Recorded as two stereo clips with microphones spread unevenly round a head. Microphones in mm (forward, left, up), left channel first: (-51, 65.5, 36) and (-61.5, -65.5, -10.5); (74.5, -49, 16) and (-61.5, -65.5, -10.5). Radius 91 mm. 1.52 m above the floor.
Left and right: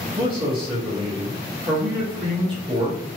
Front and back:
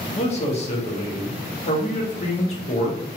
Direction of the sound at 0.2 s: 40° right.